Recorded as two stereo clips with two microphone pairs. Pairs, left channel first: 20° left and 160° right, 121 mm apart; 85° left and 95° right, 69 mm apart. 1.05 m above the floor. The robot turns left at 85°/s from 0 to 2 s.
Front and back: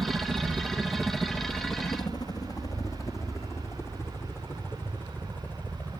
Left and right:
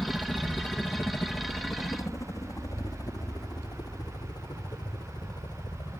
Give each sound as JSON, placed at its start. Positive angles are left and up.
{"t": 0.0, "sound": "a helicopter", "azimuth_deg": 155}